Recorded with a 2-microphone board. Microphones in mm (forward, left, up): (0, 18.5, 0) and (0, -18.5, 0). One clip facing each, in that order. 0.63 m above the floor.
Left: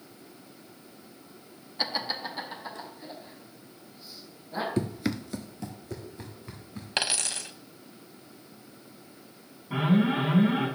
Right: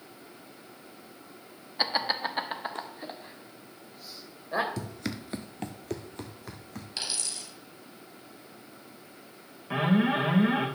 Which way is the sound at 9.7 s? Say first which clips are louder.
Even; 70° right (ahead or behind).